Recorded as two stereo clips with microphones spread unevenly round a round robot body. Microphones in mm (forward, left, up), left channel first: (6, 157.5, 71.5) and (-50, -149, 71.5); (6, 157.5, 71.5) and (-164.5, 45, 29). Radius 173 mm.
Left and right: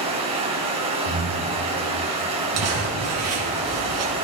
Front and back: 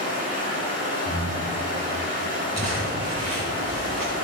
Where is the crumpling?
60° right, 4 m.